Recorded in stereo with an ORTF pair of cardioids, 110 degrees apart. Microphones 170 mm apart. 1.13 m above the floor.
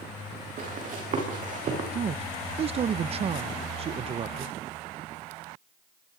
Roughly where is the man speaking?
Ahead right.